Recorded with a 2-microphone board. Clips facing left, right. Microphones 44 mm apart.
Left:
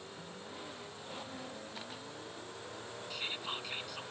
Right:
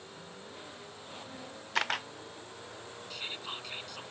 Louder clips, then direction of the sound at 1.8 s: Right 14 dB; 75° right (ahead or behind).